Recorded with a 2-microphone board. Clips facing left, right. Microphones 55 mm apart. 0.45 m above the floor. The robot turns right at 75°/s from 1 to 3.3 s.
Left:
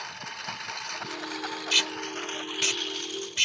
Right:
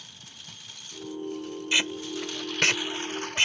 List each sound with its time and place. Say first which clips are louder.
0.0 s a lawn mower: left 12 dB; 55° left (ahead or behind); by 3.5 s 50° right (ahead or behind)
1.7 s tape being pulled: right 2 dB; 20° right (ahead or behind); by 3.5 s 25° right (ahead or behind)